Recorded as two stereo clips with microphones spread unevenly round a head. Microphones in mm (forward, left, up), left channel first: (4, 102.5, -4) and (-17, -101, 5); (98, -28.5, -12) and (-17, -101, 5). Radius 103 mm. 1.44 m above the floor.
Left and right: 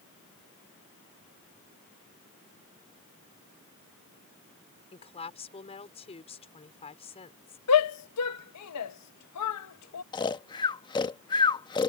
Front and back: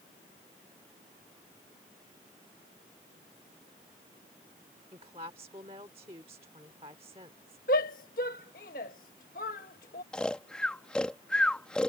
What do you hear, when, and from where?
4.9 s a woman speaking: 145° left
7.7 s a shout: 80° left
10.1 s snoring: 125° left